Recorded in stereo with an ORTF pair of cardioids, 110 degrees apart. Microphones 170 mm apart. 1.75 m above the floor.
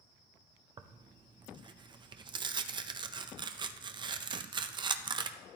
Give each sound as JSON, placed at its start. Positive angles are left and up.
{"t": 0.8, "sound": "tearing paper", "azimuth_deg": -25, "distance_m": 0.6}